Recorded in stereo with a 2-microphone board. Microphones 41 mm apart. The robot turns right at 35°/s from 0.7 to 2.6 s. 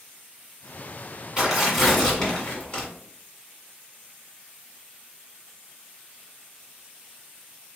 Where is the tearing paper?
15° right, 1.7 m; by 2.9 s 30° left, 1.7 m.